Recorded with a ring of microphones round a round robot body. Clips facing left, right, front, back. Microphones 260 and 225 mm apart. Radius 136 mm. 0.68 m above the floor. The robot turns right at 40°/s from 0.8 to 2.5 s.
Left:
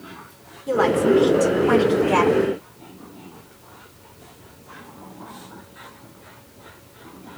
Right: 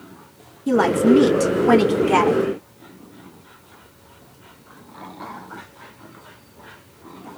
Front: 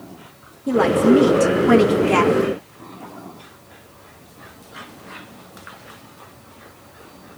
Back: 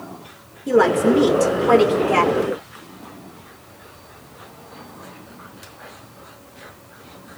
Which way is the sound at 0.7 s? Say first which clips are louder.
Right 3 dB, front 1 dB; 100° right.